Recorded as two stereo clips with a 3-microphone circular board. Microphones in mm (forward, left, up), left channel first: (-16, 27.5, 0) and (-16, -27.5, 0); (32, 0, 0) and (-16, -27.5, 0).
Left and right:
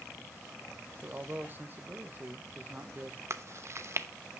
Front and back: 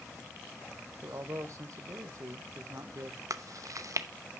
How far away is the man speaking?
About 1.4 m.